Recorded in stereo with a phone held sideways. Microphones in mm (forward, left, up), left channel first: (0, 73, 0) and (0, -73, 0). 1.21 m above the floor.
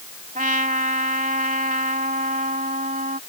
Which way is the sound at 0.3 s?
65° right (ahead or behind).